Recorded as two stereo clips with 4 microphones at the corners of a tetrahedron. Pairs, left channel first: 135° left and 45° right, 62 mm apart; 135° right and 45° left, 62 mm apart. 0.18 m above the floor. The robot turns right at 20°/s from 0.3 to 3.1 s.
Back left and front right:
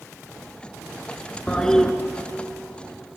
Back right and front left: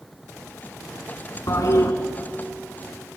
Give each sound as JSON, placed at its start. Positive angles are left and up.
{"t": 1.5, "sound": "a toilet flushing", "azimuth_deg": -155, "distance_m": 1.5}